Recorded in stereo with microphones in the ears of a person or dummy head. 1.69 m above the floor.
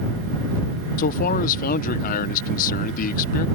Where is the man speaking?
45° left (ahead or behind).